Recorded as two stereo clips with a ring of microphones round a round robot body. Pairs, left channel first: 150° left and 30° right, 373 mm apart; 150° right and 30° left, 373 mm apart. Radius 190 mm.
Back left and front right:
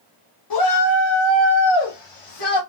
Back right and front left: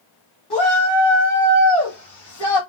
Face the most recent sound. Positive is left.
turn(degrees=170)